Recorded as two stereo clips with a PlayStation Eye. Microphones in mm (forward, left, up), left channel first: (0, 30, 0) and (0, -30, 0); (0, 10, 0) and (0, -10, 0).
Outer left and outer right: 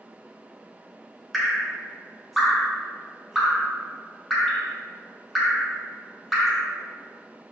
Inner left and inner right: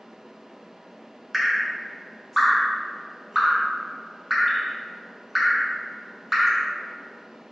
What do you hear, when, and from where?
1.3 s dripping: centre (ahead or behind), 0.5 m